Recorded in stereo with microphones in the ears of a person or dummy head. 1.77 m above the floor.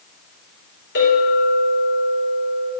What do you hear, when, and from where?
0.9 s a clink: 55° left (ahead or behind), 5.5 m